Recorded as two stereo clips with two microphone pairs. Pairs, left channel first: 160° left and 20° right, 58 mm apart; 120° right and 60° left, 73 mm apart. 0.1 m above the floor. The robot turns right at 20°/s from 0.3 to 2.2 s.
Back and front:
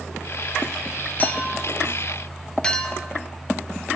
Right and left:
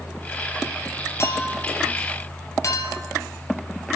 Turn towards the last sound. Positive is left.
turn(degrees=-130)